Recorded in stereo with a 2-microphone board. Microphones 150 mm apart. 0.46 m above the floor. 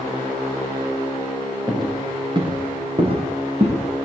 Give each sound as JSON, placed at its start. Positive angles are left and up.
{"t": 1.7, "sound": "footsteps", "side_deg": -25, "distance_m": 7.0}